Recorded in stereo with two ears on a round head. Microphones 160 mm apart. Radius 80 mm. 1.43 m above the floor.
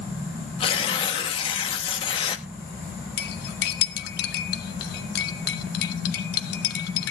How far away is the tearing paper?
About 1.0 m.